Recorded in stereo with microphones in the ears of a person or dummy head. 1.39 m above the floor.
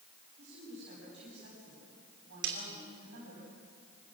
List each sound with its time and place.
0.4 s a woman speaking: 60° right (ahead or behind), 10 m
2.4 s a snare drum: 60° right (ahead or behind), 2.5 m